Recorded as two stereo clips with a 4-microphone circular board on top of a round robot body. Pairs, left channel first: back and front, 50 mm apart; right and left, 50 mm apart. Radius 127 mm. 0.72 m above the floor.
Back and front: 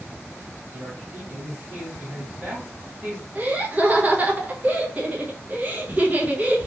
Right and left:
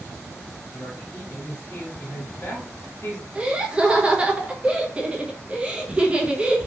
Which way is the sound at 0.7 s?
50° right.